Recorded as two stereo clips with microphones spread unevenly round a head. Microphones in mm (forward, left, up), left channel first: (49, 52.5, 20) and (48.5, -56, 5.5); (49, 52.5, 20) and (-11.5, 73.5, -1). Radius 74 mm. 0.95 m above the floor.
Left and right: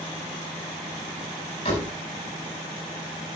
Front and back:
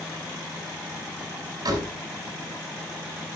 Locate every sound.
1.6 s a door slam: 145° left, 5 m